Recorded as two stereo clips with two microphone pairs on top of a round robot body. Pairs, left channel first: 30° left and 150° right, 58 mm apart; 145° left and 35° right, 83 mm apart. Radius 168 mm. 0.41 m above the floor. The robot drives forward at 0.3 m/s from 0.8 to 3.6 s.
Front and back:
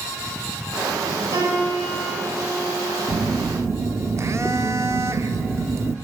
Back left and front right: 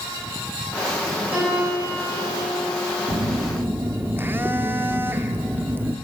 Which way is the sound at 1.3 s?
105° right.